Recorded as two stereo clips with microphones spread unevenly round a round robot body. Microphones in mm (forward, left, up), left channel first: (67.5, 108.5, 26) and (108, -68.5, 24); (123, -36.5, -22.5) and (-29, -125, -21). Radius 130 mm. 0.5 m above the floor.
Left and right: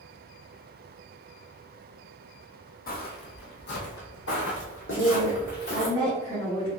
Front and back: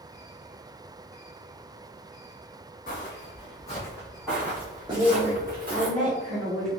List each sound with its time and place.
2.9 s footsteps: 75° left, 1.0 m; by 5.9 s 155° left, 1.5 m
4.9 s a woman speaking: 170° left, 0.9 m